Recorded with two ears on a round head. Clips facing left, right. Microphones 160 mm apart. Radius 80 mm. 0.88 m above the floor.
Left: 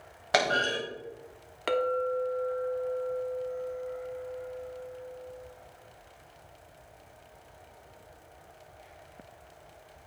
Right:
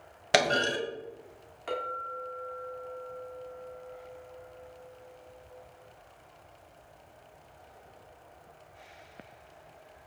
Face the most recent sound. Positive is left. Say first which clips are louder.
# left 10 dB
turn(degrees=80)